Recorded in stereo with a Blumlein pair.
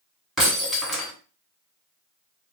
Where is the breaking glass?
Straight ahead, 1.6 m.